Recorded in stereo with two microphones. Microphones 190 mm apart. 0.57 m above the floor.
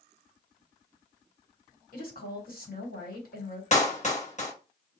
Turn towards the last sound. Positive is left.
turn(degrees=40)  # may be behind; listen again after turning